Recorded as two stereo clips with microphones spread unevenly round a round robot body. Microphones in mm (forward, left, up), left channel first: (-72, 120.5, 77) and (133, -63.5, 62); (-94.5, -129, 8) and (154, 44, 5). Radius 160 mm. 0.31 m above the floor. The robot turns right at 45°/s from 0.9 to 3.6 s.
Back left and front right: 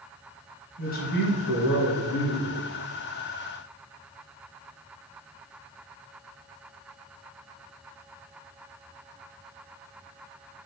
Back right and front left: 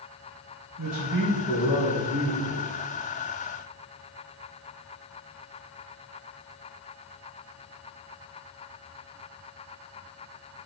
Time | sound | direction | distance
0.8 | a man speaking | 80° left | 2.5 m